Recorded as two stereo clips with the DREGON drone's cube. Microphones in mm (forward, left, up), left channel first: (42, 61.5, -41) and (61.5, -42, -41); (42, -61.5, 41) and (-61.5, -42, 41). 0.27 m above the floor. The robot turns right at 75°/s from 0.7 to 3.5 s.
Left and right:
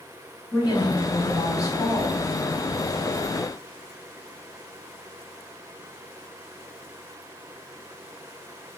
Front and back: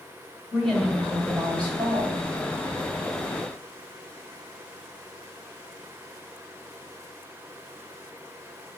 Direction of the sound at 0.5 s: 75° left.